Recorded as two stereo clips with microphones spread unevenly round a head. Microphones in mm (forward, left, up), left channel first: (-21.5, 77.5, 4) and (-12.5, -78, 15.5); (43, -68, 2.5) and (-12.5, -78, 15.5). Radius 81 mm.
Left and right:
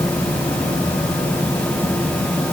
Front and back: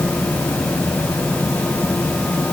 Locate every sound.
Only background noise.